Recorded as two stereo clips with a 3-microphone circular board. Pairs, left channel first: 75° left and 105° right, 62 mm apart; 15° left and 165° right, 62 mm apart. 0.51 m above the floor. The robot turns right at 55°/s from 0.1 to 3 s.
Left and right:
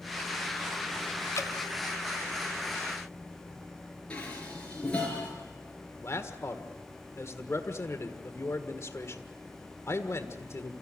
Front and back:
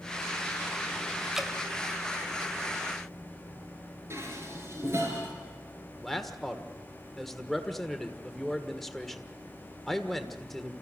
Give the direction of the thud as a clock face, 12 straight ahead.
No thud in this recording.